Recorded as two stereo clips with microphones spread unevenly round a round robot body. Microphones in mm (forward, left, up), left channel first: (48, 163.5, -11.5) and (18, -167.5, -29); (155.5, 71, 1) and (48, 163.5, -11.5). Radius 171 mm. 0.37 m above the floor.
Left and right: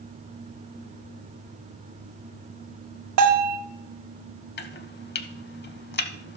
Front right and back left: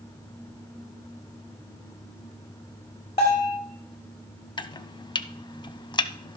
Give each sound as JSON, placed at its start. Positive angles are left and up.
{"t": 3.2, "sound": "a bell", "azimuth_deg": -100, "distance_m": 1.3}
{"t": 4.6, "sound": "chopping", "azimuth_deg": 25, "distance_m": 0.7}